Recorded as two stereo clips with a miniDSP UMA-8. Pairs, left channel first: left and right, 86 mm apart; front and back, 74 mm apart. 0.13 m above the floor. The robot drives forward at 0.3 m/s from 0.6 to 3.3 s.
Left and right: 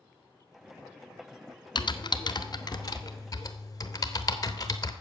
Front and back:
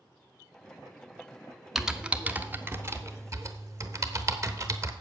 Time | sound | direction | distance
1.8 | typing on a keyboard | 95° left | 0.6 m